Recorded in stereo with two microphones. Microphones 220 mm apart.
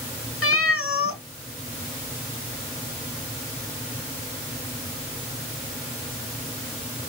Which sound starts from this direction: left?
A cat meowing, at 0.4 s.